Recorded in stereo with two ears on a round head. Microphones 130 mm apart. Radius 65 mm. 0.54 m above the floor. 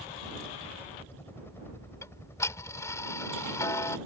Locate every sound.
0.0 s a helicopter: 15° left (ahead or behind); by 4.1 s 20° left (ahead or behind)
2.0 s ticking: 20° left (ahead or behind)